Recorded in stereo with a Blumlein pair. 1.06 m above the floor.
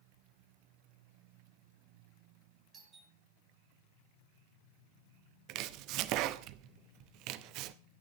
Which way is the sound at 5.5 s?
40° right.